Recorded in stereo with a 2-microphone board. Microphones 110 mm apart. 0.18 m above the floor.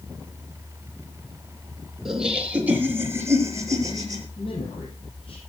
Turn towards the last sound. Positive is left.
turn(degrees=55)  # may be behind; listen again after turning